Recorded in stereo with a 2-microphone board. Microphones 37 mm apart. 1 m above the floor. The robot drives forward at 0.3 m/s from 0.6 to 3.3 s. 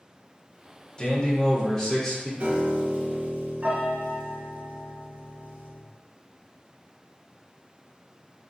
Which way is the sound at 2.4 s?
35° right (ahead or behind).